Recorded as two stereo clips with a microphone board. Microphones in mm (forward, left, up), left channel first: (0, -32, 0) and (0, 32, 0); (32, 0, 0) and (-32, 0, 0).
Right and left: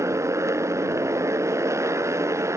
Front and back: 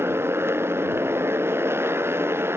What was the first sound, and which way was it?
A motorcycle, 130° left.